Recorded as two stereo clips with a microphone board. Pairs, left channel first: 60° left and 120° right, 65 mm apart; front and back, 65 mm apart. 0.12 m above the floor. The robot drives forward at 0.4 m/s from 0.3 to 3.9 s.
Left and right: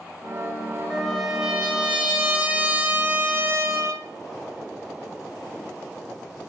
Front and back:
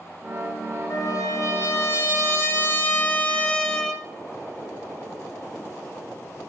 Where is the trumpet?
30° right, 1.6 m; by 4.0 s 80° right, 0.9 m.